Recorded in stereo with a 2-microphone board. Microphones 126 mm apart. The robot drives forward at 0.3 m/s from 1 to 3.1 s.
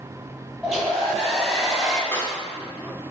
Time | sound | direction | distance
0.6 | a hair dryer | centre (ahead or behind) | 1.0 m
2.1 | a clap | 20° left (ahead or behind) | 0.7 m